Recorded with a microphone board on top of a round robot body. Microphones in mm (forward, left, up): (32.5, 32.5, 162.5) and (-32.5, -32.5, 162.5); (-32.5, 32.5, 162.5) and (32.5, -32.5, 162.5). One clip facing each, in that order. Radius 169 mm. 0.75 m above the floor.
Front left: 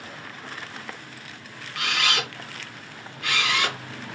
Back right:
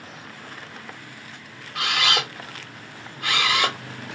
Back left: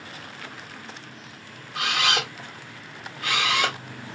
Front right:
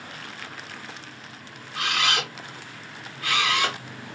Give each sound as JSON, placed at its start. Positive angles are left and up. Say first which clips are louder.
{"t": 1.8, "sound": "a camera shutter", "louder": "back right 2 dB, back left 1 dB", "azimuth_deg": -175, "distance_m": 0.7}